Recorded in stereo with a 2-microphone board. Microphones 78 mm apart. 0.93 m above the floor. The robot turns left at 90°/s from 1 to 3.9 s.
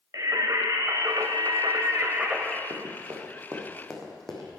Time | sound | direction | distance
0.1 | singing | 55° right | 1.5 m
2.7 | running footsteps | 55° right (ahead or behind) | 3.5 m